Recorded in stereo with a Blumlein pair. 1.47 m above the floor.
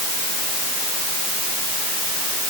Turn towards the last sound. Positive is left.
No sound to turn to.